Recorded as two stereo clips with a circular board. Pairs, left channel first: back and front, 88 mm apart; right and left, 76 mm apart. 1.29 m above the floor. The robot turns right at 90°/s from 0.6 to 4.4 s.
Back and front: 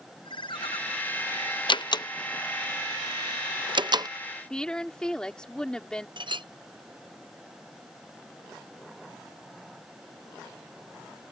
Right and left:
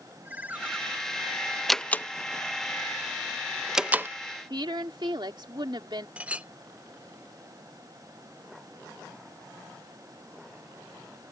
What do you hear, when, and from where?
0.2 s a ringtone: 160° left; by 0.8 s 175° left
1.7 s a door slam: straight behind; by 4.1 s 35° left
4.5 s a woman speaking: 100° left
6.2 s a clink: 20° left